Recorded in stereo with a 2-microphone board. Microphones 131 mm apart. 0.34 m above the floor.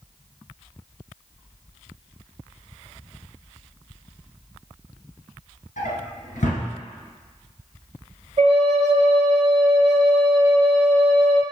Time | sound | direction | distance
5.8 | a drawer | 75° left (ahead or behind) | 1.1 m
8.4 | a flute | 55° right (ahead or behind) | 0.6 m